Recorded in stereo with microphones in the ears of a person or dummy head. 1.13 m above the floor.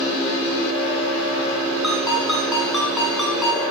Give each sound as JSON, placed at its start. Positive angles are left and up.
{"t": 1.8, "sound": "a ringtone", "side_deg": 0, "distance_m": 6.5}